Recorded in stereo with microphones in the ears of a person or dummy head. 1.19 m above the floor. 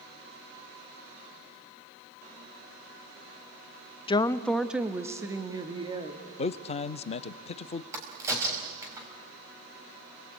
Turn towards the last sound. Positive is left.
turn(degrees=-20)  # may be behind; listen again after turning